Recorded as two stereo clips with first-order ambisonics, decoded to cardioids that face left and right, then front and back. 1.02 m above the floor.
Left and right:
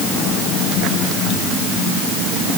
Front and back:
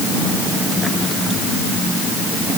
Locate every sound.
Only background noise.